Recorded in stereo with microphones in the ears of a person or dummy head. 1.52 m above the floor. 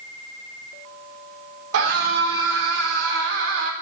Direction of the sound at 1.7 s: 85° right.